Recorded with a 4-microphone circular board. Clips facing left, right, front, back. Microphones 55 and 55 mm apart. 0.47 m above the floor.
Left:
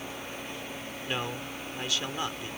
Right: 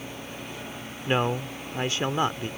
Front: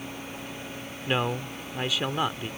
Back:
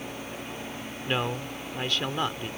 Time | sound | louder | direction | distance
1.1 | a man speaking | right 9 dB, front 2 dB | 75° right | ?